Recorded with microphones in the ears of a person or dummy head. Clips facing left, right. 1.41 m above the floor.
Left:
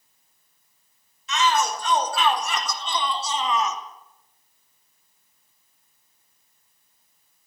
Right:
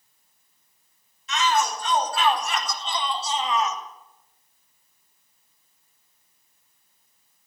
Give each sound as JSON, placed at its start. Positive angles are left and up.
{"t": 1.3, "sound": "a shout", "side_deg": 75, "distance_m": 6.0}